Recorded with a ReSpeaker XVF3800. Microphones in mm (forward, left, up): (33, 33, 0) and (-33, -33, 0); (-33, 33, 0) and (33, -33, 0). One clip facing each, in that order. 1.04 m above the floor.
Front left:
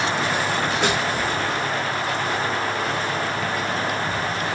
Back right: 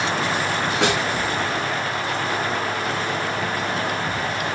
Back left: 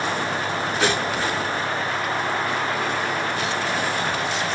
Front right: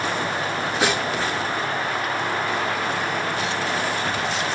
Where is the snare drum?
125° right, 1.3 m.